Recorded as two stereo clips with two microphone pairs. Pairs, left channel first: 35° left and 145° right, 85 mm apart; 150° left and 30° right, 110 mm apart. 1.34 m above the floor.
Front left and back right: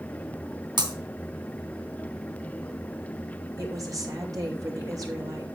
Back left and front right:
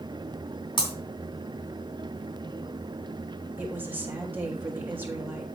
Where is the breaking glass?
165° right, 3 m.